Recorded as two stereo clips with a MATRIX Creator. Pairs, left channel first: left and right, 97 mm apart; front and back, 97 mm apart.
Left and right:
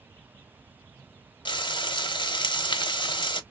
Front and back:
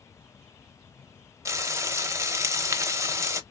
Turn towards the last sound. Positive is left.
turn(degrees=120)